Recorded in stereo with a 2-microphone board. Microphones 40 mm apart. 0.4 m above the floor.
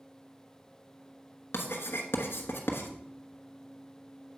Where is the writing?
80° left, 1.1 m.